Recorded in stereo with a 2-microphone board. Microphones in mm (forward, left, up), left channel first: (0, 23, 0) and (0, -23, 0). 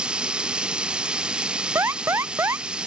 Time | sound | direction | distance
0.0 | running water | 20° right (ahead or behind) | ?
1.8 | an alarm | 80° right | ?